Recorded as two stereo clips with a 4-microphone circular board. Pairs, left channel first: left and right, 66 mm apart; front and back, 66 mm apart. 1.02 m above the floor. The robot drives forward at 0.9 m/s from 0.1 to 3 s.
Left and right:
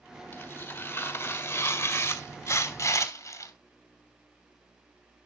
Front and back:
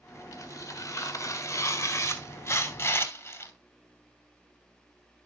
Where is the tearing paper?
35° left, 6 m; by 3.5 s 55° left, 4 m.